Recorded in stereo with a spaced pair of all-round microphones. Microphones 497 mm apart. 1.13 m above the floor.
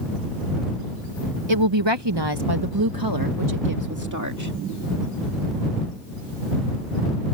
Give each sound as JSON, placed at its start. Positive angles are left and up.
{"t": 1.5, "sound": "a woman speaking", "side_deg": -65}